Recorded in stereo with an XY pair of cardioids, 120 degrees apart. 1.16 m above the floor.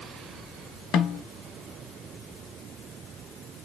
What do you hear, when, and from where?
0.9 s a snare drum: 65° left, 0.7 m